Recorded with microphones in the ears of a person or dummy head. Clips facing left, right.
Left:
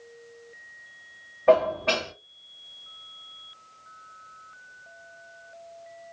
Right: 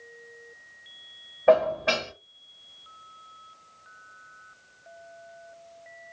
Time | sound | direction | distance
1.5 | dishes clattering | 10° right (ahead or behind) | 1.2 m